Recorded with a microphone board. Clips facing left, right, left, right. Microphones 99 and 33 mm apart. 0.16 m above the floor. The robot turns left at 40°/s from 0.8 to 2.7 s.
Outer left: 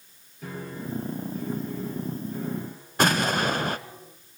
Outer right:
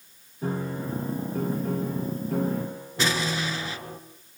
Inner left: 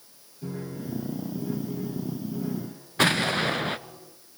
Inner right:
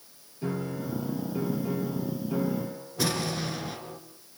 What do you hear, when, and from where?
0.4 s a piano: 30° right, 6 m; by 4.0 s 105° right, 6 m
3.0 s an explosion: 55° left (ahead or behind), 1.2 m